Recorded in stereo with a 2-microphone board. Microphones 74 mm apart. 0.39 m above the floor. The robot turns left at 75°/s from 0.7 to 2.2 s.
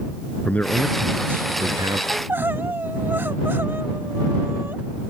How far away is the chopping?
No chopping in this recording.